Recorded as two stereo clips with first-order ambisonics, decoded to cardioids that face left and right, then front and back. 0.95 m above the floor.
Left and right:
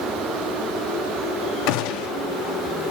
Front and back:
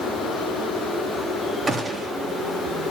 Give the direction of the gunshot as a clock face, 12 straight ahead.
9 o'clock.